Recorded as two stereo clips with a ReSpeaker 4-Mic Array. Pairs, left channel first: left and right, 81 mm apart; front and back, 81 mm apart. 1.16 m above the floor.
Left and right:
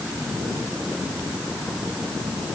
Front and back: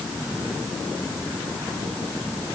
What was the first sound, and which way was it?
Only background noise.